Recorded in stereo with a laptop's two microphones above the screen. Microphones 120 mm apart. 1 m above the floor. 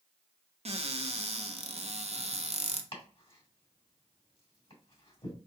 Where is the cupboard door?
60° right (ahead or behind), 0.6 m.